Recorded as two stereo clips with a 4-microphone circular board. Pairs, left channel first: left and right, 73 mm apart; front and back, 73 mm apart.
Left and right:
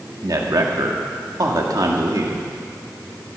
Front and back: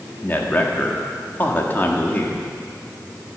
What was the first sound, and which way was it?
A man speaking, 60° right.